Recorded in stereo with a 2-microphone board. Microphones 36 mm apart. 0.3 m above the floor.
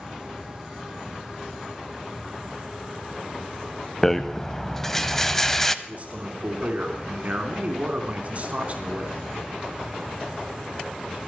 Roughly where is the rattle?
Centre.